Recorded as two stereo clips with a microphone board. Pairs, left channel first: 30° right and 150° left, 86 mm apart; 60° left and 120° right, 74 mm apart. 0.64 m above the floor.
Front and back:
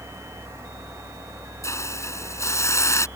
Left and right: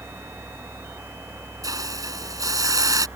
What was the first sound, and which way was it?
A hiss, 85° right.